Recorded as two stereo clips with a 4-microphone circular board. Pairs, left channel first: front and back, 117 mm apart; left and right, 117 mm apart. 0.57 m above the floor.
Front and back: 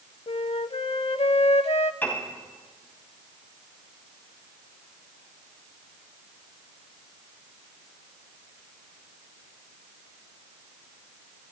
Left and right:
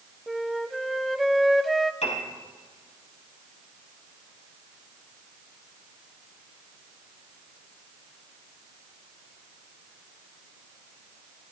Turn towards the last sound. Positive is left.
turn(degrees=75)